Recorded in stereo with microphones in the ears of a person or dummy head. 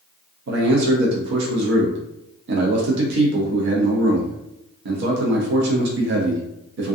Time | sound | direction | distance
0.5 | a man speaking | 70° right (ahead or behind) | 0.5 m